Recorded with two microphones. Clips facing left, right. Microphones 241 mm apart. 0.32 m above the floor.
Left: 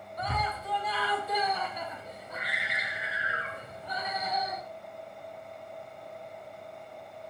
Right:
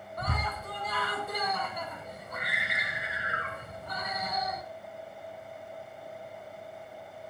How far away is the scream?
About 2 m.